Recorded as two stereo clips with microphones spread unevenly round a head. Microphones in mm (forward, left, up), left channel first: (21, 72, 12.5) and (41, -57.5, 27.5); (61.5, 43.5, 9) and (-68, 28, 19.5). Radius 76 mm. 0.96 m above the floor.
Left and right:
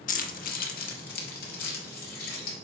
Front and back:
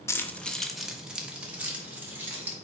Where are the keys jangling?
75° left, 0.7 m; by 2.5 s 110° left, 2.5 m.